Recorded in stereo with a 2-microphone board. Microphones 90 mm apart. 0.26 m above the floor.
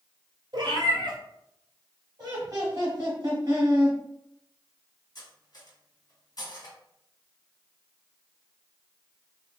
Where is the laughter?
40° right (ahead or behind), 1.4 m.